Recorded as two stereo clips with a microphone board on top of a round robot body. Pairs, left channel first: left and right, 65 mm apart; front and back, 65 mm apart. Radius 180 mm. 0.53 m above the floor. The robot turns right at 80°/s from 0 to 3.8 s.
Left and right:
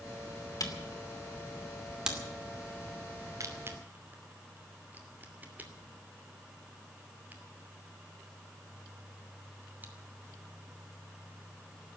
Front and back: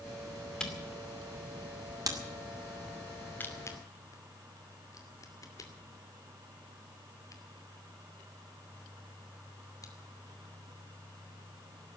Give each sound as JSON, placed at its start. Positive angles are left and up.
{"t": 0.6, "sound": "a camera shutter", "azimuth_deg": 75, "distance_m": 2.5}